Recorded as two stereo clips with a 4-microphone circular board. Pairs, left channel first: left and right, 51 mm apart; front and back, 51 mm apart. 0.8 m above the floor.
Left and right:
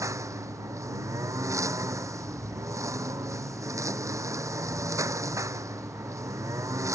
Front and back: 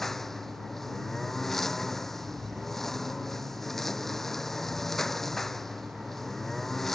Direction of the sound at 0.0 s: 85° right.